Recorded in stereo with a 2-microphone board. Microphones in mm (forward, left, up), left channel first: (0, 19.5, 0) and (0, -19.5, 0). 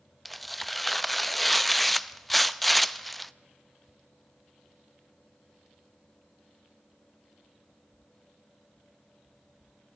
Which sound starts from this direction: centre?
Tearing paper, at 0.2 s.